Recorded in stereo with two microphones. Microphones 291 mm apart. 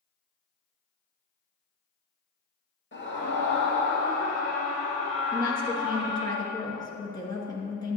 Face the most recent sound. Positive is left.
turn(degrees=15)  # may be behind; listen again after turning